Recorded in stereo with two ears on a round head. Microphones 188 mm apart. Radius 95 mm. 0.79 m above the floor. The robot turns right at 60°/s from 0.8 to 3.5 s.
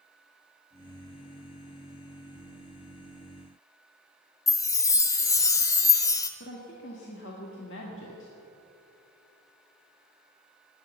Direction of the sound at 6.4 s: 60° left (ahead or behind).